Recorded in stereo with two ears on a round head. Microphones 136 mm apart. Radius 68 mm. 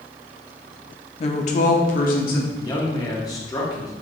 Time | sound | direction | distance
1.2 | a woman speaking | 40° left (ahead or behind) | 0.6 m
2.5 | a man speaking | 25° left (ahead or behind) | 1.1 m